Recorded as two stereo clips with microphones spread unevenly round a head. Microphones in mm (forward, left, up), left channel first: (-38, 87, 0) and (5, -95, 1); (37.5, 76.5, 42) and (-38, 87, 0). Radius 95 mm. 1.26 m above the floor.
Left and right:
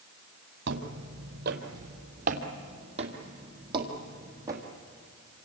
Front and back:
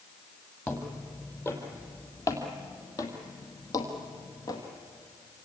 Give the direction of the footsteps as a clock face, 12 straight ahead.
2 o'clock.